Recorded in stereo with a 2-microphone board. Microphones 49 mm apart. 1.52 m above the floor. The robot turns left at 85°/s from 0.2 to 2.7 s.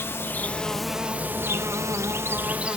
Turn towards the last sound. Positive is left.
turn(degrees=-155)